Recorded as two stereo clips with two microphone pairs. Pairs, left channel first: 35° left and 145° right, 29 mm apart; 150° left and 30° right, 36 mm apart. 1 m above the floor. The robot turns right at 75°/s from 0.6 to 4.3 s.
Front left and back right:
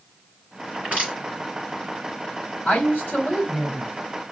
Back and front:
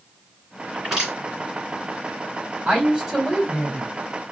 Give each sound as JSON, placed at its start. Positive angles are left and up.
{"t": 0.7, "sound": "crushing", "azimuth_deg": -125, "distance_m": 4.0}
{"t": 2.6, "sound": "a woman speaking", "azimuth_deg": 20, "distance_m": 3.5}